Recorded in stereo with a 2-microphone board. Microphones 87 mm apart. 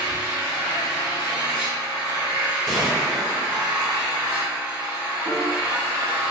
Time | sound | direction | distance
0.0 | an engine running | 15° right (ahead or behind) | 1.5 m
2.7 | a gunshot | centre (ahead or behind) | 1.1 m
5.2 | a piano | 15° right (ahead or behind) | 1.1 m